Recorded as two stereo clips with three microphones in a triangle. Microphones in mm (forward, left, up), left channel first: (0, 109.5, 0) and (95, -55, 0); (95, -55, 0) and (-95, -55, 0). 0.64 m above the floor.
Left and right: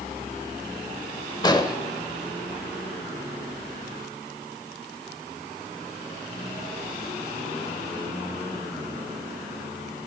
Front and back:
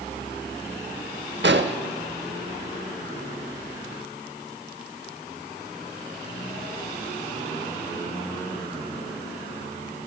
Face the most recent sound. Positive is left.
turn(degrees=-175)